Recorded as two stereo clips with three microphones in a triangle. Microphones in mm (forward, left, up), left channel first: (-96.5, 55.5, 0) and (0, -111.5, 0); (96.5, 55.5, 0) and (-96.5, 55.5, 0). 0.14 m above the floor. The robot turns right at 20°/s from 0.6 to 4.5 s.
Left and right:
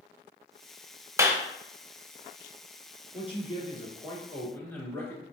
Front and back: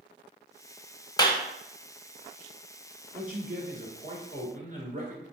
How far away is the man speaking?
About 1.6 m.